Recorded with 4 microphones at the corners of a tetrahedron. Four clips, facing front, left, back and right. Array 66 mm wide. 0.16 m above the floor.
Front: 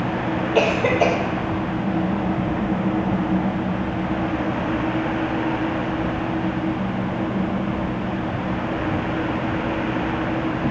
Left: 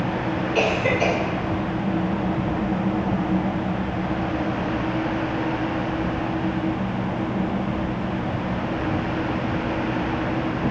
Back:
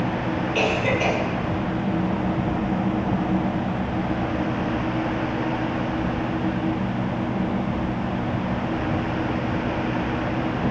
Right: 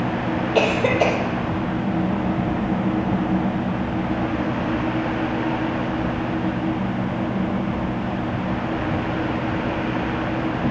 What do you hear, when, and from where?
0.6 s a cough: 55° right, 7 m